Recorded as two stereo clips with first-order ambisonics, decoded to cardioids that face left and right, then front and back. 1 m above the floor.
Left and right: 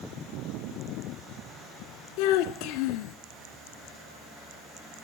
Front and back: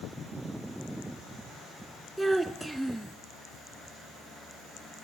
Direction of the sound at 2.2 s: 90° left.